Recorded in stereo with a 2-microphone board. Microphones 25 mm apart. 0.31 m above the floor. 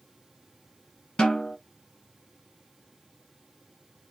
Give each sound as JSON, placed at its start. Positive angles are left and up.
{"t": 1.2, "sound": "a snare drum", "side_deg": 30, "distance_m": 1.7}